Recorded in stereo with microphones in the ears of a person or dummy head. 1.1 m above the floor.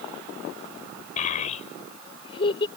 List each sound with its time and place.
1.2 s a child speaking: 50° left (ahead or behind); by 2.7 s 30° left (ahead or behind)